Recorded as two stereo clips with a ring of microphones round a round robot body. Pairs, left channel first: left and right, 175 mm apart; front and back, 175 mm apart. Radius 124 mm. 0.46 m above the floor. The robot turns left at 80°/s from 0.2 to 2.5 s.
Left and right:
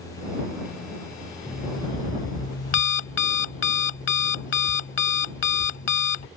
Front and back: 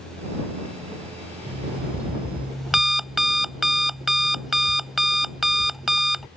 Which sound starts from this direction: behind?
An alarm clock, at 1.5 s.